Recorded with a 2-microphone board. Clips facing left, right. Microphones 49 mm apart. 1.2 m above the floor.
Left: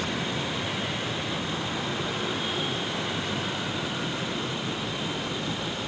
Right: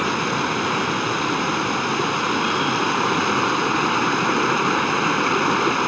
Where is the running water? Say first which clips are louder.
Right 9 dB; 75° right (ahead or behind).